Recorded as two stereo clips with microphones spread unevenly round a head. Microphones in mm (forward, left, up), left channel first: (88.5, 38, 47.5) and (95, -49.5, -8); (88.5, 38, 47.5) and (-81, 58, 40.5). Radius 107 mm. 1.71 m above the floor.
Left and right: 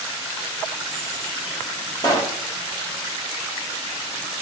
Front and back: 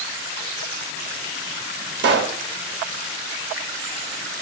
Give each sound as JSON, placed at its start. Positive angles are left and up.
{"t": 2.0, "sound": "a pop", "azimuth_deg": 155, "distance_m": 0.7}